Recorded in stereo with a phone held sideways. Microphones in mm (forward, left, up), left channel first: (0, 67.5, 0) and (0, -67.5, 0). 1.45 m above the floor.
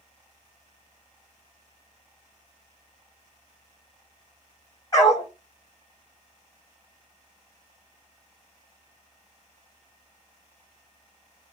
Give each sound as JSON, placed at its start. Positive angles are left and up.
{"t": 4.9, "sound": "a dog barking", "side_deg": 25, "distance_m": 1.9}